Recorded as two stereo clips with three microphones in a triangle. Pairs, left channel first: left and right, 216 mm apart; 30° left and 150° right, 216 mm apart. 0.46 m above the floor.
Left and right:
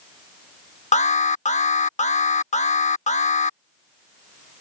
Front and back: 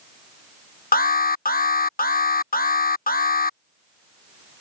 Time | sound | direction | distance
0.9 | an alarm | 50° left | ?